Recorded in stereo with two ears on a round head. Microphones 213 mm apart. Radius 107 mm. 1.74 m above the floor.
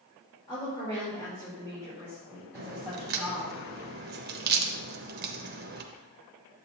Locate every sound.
0.5 s a woman speaking: 15° left (ahead or behind), 3.5 m; by 3.5 s 5° left (ahead or behind), 5.5 m
2.5 s a crack: 45° right (ahead or behind), 0.9 m